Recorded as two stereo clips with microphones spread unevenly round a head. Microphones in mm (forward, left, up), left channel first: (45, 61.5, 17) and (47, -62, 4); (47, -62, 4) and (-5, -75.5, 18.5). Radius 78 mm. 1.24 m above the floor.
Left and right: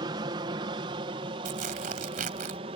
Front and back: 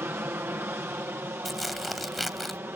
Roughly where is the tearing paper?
Right.